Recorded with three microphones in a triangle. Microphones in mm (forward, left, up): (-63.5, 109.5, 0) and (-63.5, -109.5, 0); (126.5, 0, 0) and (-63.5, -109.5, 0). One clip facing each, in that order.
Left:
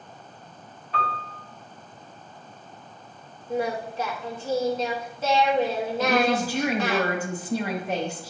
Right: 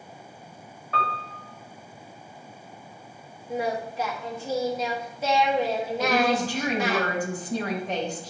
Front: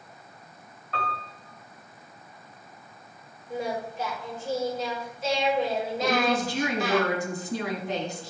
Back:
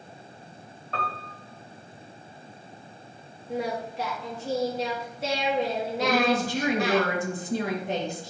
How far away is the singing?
About 1.8 m.